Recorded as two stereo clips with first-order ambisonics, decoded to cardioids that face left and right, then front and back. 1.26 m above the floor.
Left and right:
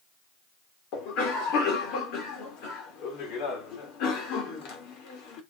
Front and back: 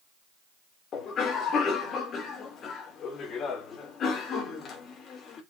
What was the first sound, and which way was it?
A cough, 60° left.